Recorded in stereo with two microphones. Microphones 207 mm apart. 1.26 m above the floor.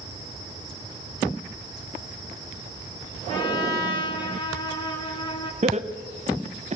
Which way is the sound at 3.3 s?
20° left (ahead or behind).